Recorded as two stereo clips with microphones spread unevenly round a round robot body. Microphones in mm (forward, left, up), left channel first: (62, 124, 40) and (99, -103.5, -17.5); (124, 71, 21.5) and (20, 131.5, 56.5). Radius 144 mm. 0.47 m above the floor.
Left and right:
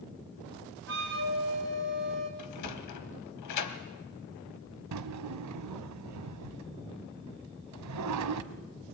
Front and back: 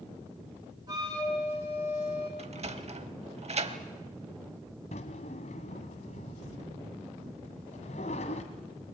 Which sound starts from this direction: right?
A drawer, at 4.9 s.